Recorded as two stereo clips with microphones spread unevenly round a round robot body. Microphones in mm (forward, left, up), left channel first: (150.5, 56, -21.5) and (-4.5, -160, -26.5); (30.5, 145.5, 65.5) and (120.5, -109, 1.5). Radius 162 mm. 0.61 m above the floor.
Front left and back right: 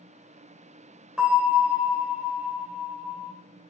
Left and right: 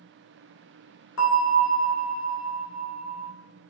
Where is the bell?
145° left, 2.5 m.